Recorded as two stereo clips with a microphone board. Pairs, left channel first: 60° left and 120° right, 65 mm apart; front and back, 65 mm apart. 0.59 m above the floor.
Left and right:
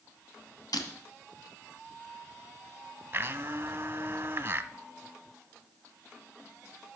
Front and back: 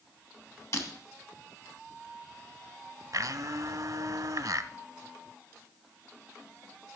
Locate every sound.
0.7 s breaking glass: 45° left, 2.5 m
3.1 s a blender: 170° right, 0.7 m